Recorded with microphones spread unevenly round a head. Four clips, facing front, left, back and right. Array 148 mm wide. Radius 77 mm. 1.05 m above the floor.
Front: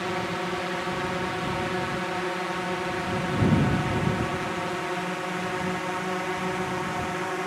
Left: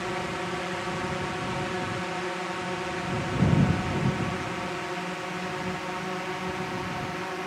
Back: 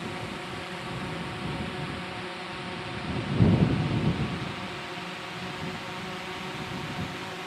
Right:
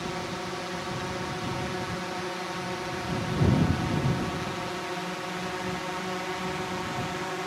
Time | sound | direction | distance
0.0 | a drone | 20° left | ?